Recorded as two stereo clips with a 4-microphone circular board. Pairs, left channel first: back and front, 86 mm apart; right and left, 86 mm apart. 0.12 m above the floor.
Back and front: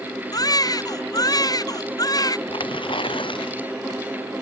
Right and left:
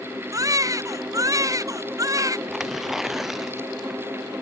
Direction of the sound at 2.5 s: 175° left.